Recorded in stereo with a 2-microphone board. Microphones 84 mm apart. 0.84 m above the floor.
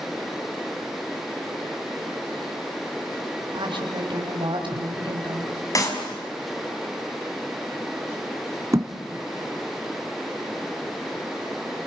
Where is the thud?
35° right (ahead or behind), 1.7 m.